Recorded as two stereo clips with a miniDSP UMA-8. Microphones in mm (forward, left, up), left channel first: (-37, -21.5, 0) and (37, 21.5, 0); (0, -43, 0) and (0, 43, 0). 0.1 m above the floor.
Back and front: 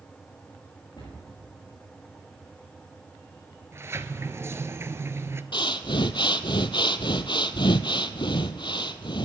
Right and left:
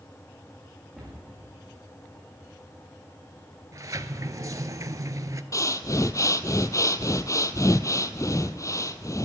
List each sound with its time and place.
1.0 s a cupboard door: 175° left, 6 m
3.7 s a sliding door: 70° left, 0.5 m
5.5 s breathing: 135° right, 0.5 m